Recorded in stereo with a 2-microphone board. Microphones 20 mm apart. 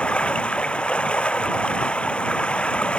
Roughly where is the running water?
Left.